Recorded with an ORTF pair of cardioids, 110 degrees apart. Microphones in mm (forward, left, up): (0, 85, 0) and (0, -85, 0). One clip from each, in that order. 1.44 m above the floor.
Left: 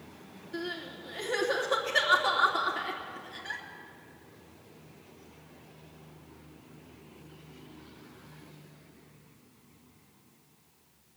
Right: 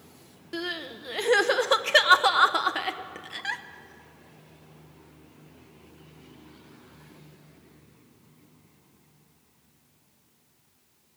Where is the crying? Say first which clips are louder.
Right 4 dB; 70° right, 0.9 m.